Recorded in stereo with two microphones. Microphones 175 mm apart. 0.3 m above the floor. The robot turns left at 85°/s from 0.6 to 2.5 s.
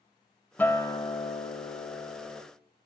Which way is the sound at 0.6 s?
160° left.